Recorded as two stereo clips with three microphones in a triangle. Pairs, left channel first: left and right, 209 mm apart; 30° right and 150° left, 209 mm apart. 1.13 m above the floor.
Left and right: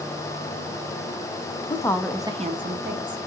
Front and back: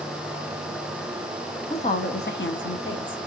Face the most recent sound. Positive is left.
turn(degrees=-60)